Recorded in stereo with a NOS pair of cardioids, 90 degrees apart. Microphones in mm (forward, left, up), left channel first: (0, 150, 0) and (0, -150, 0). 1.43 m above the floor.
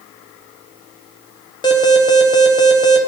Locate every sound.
1.6 s an alarm: 15° left, 1.3 m